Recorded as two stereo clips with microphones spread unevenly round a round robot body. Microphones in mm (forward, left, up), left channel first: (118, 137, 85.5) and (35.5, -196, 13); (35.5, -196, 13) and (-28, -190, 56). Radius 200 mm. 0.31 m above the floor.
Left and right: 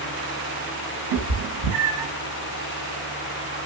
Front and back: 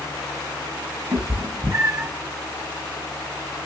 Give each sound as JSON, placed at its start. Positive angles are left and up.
{"t": 1.1, "sound": "a cat meowing", "azimuth_deg": -130, "distance_m": 0.9}